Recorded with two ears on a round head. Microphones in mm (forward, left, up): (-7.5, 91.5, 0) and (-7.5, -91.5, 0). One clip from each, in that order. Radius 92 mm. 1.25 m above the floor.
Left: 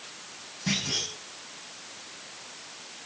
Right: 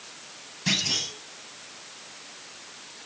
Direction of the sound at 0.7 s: 75° right (ahead or behind).